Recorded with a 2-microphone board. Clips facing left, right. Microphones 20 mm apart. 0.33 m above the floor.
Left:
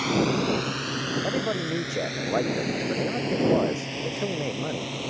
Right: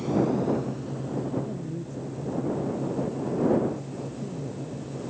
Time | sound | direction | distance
0.0 | a drone | 55° left (ahead or behind) | ?
1.2 | a man speaking | 80° left | ?